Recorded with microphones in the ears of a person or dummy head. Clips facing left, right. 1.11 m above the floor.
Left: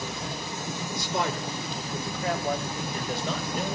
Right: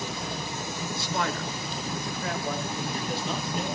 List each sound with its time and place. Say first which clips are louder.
0.9 s a man speaking: left 1 dB; 15° left (ahead or behind), 3 m; by 3.8 s 45° left (ahead or behind), 5 m